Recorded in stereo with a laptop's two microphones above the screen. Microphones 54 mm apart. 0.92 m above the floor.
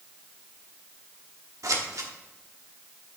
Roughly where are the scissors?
Right.